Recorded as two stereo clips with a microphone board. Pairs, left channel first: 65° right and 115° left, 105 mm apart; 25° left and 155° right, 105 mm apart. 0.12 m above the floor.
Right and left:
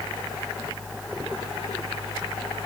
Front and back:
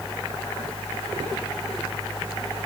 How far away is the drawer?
No drawer in this recording.